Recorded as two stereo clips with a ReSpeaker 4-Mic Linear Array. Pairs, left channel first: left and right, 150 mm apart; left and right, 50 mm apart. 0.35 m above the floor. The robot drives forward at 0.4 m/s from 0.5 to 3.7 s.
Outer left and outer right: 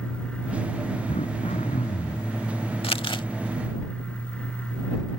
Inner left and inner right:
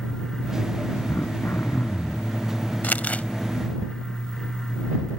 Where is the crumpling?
40° left (ahead or behind); by 3.2 s 30° left (ahead or behind).